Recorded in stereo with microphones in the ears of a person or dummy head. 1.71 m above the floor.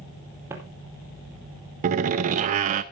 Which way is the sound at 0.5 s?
15° right (ahead or behind).